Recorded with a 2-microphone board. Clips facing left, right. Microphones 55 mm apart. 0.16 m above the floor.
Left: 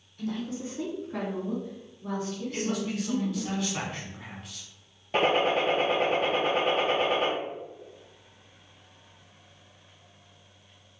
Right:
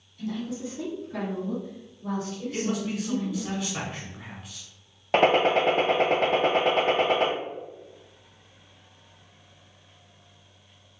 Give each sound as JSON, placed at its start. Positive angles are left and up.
{"t": 0.2, "sound": "a woman speaking", "side_deg": 45, "distance_m": 1.5}
{"t": 2.5, "sound": "a man speaking", "side_deg": 0, "distance_m": 1.0}
{"t": 5.1, "sound": "a gunshot", "side_deg": -80, "distance_m": 0.6}